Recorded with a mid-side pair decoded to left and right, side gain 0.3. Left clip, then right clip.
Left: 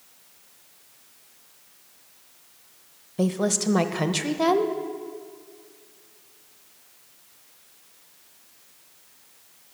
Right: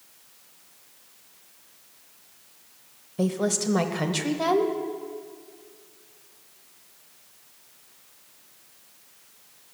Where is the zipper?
I don't hear a zipper.